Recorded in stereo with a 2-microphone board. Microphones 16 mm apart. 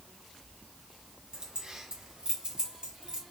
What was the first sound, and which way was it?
Keys jangling, 55° right (ahead or behind).